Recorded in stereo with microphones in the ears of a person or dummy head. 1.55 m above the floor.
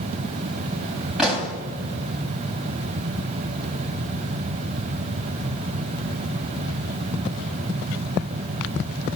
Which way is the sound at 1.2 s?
Centre (ahead or behind).